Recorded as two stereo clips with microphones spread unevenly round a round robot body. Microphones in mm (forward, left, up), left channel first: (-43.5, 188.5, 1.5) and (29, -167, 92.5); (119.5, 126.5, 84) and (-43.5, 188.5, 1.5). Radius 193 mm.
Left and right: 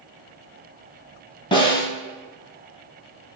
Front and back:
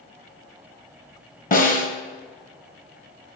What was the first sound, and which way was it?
A snare drum, 25° left.